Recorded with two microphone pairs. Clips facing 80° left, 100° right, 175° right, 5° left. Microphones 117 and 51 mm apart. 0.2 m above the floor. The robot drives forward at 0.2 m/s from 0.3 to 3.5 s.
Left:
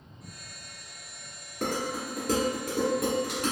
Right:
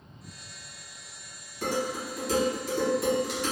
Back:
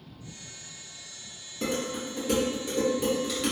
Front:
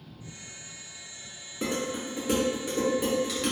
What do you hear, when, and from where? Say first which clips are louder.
1.6 s dishes clattering: right 1 dB, even; 75° left, 1.4 m; by 3.5 s 95° left, 1.4 m